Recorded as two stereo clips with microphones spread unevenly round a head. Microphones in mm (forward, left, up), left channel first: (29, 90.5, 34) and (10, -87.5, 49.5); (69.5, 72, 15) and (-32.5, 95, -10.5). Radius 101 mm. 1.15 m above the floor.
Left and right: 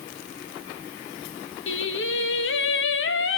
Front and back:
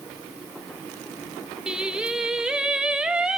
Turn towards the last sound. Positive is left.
turn(degrees=90)